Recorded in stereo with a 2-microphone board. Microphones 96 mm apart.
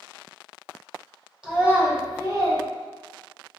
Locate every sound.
1.4 s a child speaking: 10° right (ahead or behind), 0.9 m; by 2.6 s 50° right (ahead or behind), 0.8 m